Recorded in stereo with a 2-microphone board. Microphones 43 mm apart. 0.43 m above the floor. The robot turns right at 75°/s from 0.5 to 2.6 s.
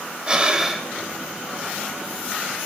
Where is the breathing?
25° right (ahead or behind), 2.5 m; by 0.9 s centre (ahead or behind), 2.5 m.